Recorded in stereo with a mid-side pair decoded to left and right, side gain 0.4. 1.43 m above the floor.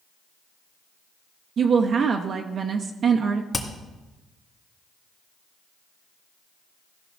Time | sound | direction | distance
1.6 | a woman speaking | 60° right | 0.7 m
3.5 | hammering | 30° left | 2 m